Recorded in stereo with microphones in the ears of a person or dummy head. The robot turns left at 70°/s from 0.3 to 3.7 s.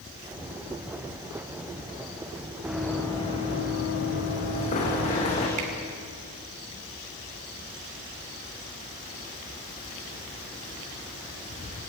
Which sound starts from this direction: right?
A finger snap, at 5.6 s.